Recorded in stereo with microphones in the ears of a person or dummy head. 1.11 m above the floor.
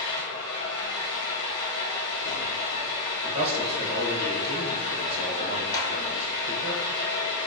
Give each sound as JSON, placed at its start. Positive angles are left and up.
{"t": 0.0, "sound": "an engine running", "side_deg": 60, "distance_m": 1.5}
{"t": 3.2, "sound": "a man speaking", "side_deg": -35, "distance_m": 0.8}
{"t": 5.7, "sound": "a clap", "side_deg": 20, "distance_m": 1.0}